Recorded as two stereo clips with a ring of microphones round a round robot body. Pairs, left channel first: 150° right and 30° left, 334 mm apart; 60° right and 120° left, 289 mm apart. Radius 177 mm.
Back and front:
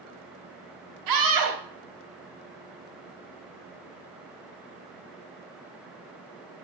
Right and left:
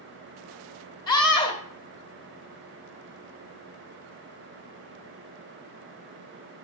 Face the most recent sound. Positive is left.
turn(degrees=15)